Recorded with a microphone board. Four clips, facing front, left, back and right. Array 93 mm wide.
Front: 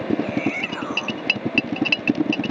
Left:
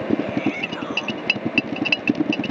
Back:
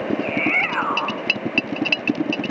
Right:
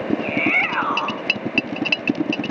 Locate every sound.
0.2 s a shout: 130° right